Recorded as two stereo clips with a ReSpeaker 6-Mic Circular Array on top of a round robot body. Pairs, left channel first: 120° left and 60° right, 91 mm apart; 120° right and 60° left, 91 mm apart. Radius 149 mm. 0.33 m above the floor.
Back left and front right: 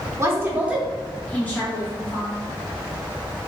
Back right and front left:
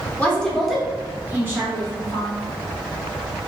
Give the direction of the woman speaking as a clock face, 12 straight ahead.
2 o'clock.